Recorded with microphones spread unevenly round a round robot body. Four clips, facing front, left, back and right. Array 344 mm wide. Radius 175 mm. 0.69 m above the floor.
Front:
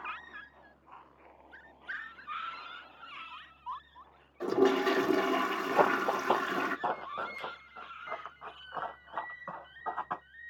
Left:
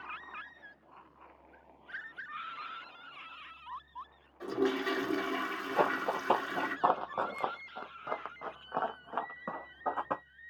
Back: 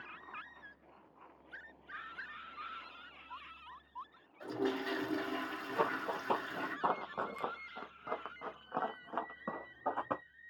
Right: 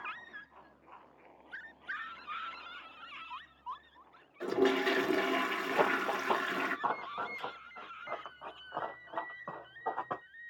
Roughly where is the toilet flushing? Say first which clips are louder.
Right 2 dB, front 10 dB; ahead.